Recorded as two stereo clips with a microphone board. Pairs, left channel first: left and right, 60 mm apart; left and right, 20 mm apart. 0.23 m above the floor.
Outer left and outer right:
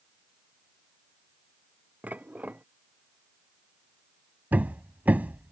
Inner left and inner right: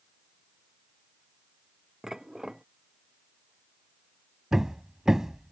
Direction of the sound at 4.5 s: 25° right (ahead or behind).